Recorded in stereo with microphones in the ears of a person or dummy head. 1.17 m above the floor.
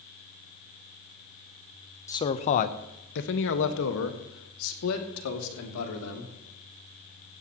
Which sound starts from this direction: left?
A man speaking, at 2.1 s.